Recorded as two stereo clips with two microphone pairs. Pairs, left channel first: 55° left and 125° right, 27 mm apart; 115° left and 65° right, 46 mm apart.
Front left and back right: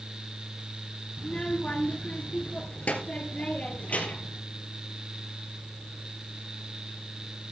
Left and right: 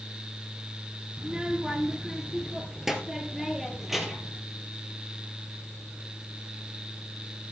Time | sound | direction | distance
1.2 | a child speaking | 5° left | 1.7 m